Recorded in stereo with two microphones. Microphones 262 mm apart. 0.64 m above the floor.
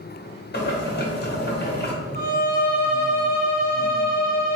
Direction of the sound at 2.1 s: 45° right (ahead or behind).